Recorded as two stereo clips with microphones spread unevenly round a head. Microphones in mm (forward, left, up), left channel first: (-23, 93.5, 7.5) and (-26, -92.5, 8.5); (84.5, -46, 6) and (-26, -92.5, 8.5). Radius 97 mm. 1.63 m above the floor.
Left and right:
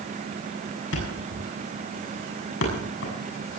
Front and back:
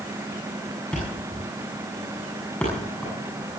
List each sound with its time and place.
0.9 s a thud: 105° left, 6.5 m